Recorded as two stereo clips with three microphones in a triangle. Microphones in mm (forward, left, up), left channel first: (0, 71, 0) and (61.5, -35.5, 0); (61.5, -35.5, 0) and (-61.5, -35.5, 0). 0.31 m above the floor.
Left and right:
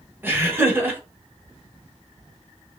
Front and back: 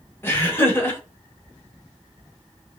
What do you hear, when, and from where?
0.2 s laughter: 25° right, 1.0 m